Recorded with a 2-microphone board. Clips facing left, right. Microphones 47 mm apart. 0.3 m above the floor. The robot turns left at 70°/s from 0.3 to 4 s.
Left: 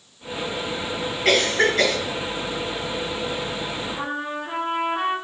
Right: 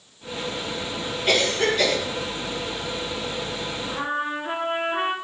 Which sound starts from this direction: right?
A trumpet, at 3.9 s.